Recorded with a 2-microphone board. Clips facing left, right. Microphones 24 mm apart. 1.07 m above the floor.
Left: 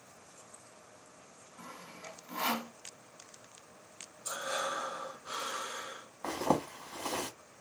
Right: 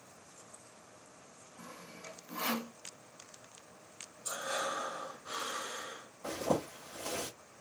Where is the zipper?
80° left, 1.4 m.